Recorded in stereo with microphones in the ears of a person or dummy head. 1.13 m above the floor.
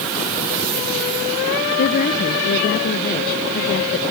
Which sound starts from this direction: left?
A woman speaking, at 1.8 s.